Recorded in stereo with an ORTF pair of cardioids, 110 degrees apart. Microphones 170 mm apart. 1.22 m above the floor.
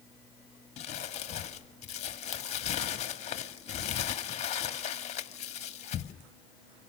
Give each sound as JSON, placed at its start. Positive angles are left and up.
{"t": 0.8, "sound": "crumpling", "azimuth_deg": 40, "distance_m": 1.7}